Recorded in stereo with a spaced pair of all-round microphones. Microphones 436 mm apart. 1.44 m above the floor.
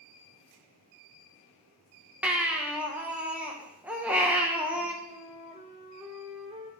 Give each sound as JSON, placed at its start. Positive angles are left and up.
{"t": 2.2, "sound": "a baby crying", "side_deg": -5, "distance_m": 0.9}
{"t": 5.0, "sound": "a flute", "side_deg": -15, "distance_m": 0.8}